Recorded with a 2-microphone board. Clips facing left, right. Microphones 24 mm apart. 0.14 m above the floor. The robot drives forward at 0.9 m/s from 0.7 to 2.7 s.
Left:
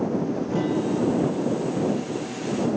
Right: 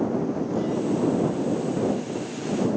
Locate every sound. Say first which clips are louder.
0.5 s a guitar: left 2 dB; 85° left, 3.5 m; by 2.7 s 60° left (ahead or behind), 4 m